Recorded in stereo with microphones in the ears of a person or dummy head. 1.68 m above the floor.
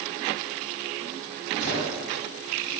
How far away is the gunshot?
About 3 m.